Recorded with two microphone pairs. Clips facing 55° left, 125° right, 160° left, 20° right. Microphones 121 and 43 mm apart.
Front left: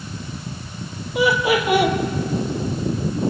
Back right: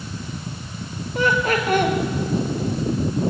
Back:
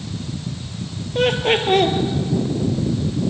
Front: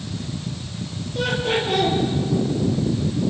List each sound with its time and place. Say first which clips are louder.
1.1 s laughter: front left 2 dB, back 5 dB; 135° left, 2.5 m